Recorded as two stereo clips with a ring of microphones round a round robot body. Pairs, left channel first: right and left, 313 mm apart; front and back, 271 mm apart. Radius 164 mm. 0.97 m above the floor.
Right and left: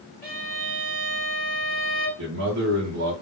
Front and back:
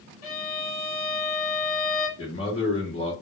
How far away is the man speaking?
About 0.9 m.